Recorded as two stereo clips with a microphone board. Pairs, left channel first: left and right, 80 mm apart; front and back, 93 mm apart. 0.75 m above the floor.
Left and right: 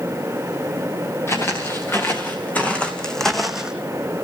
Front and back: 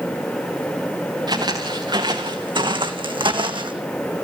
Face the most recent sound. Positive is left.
turn(degrees=-170)